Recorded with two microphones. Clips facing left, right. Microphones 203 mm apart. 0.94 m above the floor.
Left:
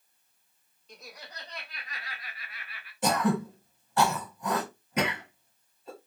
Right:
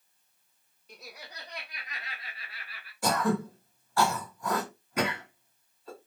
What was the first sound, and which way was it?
Laughter, 5° right (ahead or behind).